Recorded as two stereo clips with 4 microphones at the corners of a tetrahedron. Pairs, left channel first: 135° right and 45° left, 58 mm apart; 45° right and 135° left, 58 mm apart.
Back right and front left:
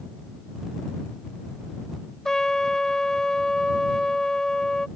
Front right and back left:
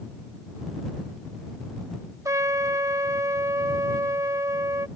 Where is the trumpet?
145° left.